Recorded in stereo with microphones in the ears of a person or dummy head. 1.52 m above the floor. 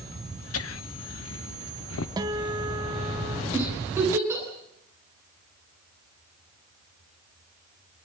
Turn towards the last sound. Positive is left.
turn(degrees=-10)  # may be behind; listen again after turning